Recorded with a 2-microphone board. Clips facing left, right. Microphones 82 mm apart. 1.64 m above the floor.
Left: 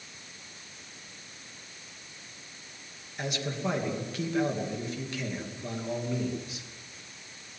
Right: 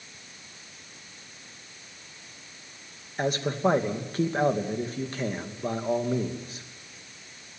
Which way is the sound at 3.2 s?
40° right (ahead or behind).